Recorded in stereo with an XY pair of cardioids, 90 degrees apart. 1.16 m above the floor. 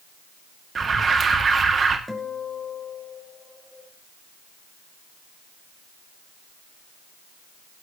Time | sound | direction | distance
0.8 | an alarm | 45° right | 2.5 m
2.1 | a guitar | 5° left | 5 m